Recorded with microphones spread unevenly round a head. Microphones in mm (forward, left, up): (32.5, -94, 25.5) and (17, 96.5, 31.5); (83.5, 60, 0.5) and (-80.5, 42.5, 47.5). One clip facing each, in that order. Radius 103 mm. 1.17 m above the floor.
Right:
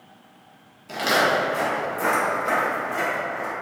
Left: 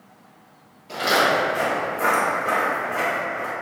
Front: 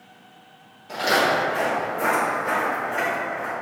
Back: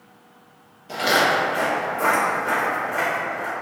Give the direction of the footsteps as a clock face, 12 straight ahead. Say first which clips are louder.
Left 1 dB, even; 4 o'clock.